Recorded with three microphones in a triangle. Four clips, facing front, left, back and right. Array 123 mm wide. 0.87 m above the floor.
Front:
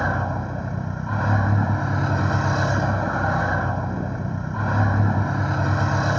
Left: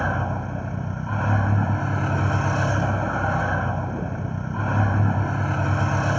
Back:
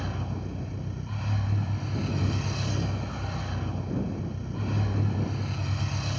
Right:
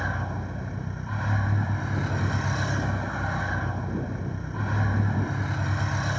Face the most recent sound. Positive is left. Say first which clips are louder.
# left 6 dB, front 11 dB
turn(degrees=35)